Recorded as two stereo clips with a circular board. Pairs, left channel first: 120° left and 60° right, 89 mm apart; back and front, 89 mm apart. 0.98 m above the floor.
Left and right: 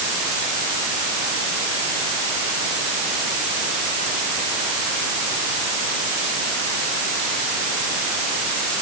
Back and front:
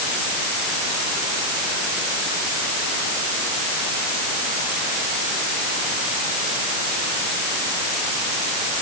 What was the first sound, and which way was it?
Only background noise.